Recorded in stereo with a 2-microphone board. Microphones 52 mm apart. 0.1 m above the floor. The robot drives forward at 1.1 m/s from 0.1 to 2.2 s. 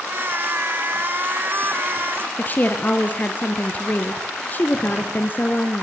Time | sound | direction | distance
2.4 | a woman speaking | 35° left (ahead or behind) | 1.5 m